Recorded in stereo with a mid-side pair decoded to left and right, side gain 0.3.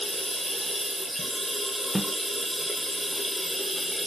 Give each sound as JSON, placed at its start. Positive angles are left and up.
{"t": 0.0, "sound": "running water", "azimuth_deg": 10, "distance_m": 1.3}
{"t": 1.9, "sound": "a snare drum", "azimuth_deg": -10, "distance_m": 0.6}